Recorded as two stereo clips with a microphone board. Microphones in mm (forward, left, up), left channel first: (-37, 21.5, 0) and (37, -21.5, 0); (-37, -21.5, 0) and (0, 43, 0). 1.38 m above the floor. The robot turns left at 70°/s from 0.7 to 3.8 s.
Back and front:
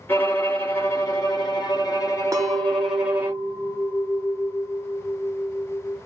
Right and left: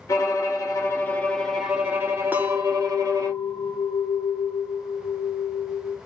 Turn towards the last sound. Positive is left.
turn(degrees=-105)